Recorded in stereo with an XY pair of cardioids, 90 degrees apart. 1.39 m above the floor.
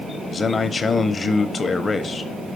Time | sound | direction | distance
0.3 | a man speaking | 35° left | 0.7 m